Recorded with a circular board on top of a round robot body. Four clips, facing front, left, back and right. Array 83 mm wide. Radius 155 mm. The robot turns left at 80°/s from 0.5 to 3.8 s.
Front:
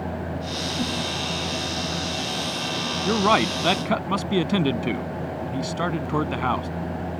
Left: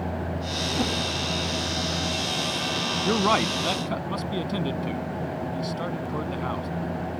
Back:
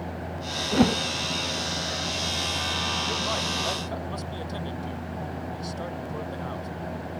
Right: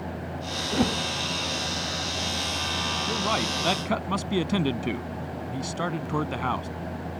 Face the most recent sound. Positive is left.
turn(degrees=-20)